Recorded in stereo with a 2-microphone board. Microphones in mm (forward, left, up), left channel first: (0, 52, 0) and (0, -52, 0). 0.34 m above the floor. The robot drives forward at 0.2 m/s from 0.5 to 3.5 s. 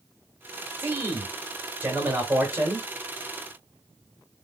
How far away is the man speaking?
About 1.3 m.